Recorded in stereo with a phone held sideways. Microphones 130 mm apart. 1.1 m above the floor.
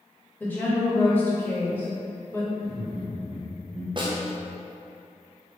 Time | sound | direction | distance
0.4 | a woman speaking | 15° left (ahead or behind) | 1.4 m
2.6 | laughter | 65° left (ahead or behind) | 1.5 m
4.0 | a snare drum | 40° right (ahead or behind) | 0.7 m